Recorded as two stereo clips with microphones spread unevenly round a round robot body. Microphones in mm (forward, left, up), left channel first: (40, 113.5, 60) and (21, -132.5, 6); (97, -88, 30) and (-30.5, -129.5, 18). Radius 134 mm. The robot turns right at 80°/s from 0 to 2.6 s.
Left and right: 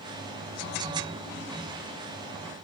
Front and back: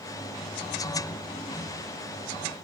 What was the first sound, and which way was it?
Only background noise.